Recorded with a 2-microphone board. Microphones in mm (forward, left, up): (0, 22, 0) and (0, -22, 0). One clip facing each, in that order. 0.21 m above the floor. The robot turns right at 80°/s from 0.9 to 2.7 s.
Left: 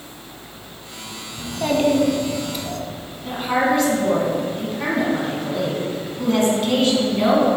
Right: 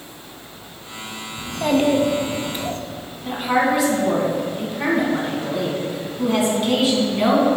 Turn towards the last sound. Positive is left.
turn(degrees=-10)  # may be behind; listen again after turning